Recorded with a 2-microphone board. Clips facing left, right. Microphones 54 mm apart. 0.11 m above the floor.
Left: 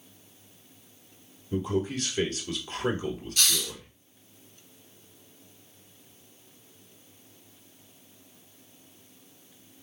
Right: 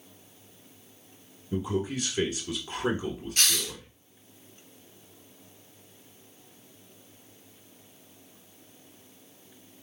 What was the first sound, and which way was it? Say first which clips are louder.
A man speaking: left 1 dB; 15° right (ahead or behind).